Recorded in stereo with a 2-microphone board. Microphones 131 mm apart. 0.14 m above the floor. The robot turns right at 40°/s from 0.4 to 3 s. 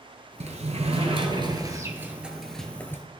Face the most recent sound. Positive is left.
turn(degrees=20)